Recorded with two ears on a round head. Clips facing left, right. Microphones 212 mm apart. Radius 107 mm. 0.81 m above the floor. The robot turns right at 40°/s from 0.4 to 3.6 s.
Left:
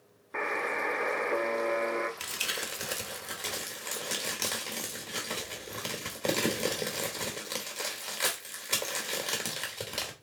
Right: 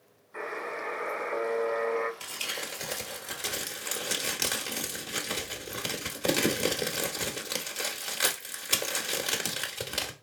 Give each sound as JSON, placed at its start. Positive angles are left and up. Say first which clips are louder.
{"t": 0.3, "sound": "a buzzer", "louder": "left 2 dB", "azimuth_deg": 100, "distance_m": 1.0}
{"t": 2.2, "sound": "crumpling", "louder": "even", "side_deg": 30, "distance_m": 1.1}